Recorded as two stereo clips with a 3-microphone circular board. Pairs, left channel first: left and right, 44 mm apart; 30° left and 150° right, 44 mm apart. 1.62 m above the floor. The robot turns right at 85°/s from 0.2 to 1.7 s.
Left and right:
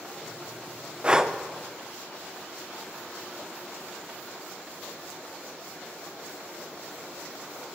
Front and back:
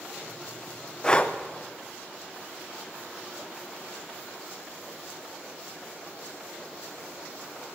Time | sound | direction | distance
1.0 | breathing | 35° right | 0.7 m